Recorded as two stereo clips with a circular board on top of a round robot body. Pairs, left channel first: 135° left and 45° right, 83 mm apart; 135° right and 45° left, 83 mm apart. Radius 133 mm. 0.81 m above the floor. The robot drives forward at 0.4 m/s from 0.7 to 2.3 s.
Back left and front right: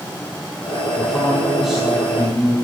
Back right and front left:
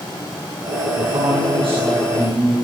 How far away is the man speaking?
About 8.5 m.